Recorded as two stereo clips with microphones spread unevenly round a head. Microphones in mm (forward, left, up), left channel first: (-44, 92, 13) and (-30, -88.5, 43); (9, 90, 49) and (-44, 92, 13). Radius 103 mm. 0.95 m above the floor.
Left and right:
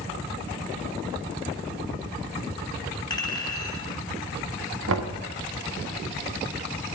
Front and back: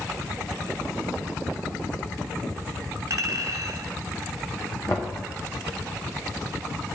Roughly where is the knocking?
Right.